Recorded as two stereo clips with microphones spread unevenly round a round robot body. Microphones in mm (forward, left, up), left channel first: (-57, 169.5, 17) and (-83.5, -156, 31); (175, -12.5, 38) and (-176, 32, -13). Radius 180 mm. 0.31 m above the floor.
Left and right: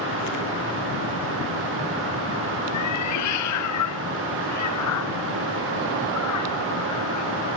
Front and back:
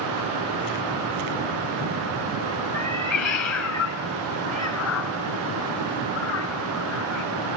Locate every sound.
2.7 s a cat meowing: 40° left